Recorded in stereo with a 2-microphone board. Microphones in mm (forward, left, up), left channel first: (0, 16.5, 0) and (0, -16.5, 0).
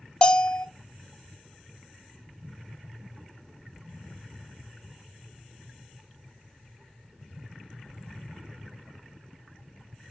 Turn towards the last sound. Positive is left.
turn(degrees=30)  # may be behind; listen again after turning